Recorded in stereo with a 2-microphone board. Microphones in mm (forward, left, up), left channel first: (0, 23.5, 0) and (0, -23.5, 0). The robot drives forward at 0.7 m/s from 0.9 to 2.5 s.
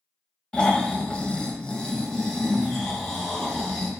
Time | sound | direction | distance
0.5 | snoring | 20° left (ahead or behind) | 0.6 m